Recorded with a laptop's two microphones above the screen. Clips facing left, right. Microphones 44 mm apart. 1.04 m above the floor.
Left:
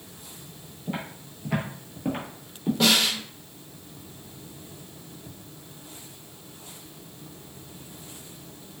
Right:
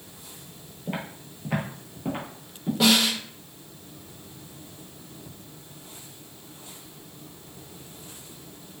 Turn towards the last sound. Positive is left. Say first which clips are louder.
# right 2 dB
turn(degrees=-5)  # may be behind; listen again after turning